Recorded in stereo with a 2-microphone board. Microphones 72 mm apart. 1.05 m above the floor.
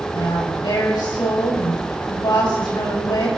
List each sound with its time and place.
0.1 s a woman speaking: 85° left, 6 m